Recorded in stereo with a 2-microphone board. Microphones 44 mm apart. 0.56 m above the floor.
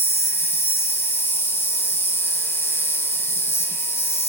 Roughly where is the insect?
Left.